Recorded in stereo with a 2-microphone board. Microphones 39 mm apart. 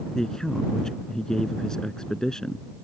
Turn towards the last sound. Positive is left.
turn(degrees=15)  # may be behind; listen again after turning